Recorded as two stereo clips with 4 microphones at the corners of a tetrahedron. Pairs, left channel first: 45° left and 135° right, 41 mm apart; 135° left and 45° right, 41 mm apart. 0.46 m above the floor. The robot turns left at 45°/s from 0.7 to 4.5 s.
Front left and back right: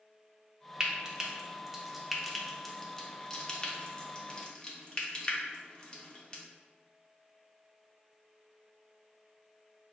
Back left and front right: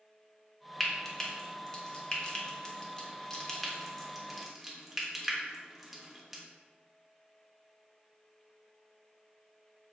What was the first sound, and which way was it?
Frying, 160° right.